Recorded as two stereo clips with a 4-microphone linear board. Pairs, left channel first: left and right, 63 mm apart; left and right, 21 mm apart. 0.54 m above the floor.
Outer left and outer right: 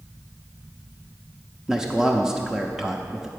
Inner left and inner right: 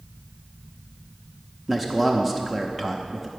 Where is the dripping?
No dripping in this recording.